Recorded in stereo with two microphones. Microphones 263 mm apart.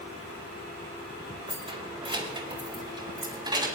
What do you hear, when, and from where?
1.5 s keys jangling: 20° right (ahead or behind), 3 m; by 3.7 s 15° right (ahead or behind), 5.5 m